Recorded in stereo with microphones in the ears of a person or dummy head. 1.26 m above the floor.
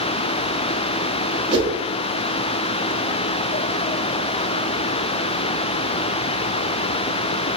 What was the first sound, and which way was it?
A whoosh, 30° right (ahead or behind).